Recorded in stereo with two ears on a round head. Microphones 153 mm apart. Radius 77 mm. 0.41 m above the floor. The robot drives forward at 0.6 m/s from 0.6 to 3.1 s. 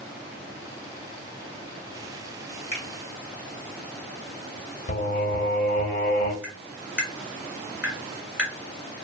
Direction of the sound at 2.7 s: 40° left (ahead or behind).